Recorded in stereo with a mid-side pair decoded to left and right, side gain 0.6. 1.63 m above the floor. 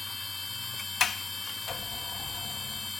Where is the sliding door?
35° left.